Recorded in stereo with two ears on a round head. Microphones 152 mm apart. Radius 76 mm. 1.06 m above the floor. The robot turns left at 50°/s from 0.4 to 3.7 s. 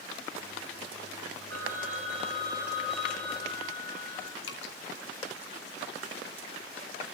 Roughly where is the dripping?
Left.